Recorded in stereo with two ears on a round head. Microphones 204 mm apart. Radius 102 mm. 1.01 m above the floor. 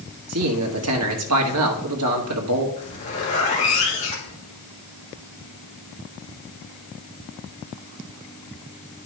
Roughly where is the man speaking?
Right.